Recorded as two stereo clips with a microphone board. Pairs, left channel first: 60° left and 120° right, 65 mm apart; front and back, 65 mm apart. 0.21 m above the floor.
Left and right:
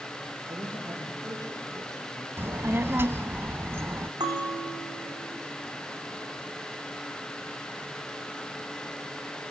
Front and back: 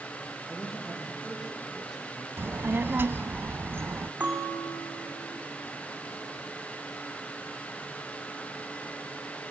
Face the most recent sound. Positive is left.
turn(degrees=-120)